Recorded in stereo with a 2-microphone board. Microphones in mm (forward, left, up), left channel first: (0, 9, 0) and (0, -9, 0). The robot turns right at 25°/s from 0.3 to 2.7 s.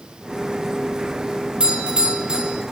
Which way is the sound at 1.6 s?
70° right (ahead or behind).